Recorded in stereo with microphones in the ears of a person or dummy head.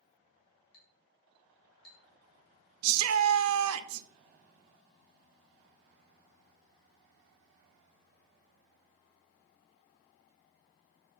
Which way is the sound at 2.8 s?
80° right.